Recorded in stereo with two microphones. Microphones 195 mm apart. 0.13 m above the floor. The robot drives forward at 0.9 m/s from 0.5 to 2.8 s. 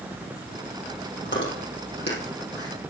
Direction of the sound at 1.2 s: 65° left (ahead or behind).